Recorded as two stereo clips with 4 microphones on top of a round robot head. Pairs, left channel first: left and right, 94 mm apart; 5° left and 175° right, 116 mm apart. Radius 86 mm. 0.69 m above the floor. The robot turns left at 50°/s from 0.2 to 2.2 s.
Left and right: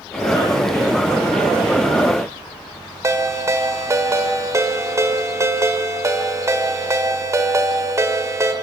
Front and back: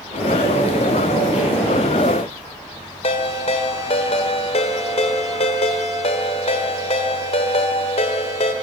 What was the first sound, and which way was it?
A ringtone, 35° right.